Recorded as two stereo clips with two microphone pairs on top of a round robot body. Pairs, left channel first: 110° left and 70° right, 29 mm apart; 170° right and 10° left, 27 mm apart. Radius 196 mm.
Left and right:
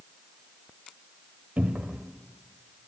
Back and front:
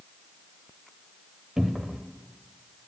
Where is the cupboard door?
60° right, 1.1 m.